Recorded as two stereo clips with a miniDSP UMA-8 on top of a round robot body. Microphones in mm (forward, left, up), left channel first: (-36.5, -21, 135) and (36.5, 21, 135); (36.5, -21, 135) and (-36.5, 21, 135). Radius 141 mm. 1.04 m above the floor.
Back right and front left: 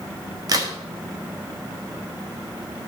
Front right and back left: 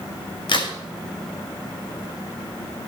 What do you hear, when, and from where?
0.5 s a crack: 15° right, 1.6 m